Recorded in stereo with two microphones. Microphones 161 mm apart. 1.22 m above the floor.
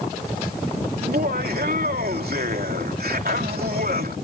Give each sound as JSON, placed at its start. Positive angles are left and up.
{"t": 1.0, "sound": "laughter", "side_deg": -70}